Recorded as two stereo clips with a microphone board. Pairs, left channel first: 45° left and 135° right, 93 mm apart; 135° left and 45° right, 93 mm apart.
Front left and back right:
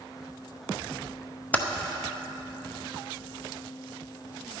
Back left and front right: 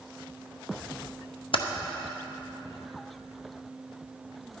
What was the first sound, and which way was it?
Typing on a keyboard, 120° left.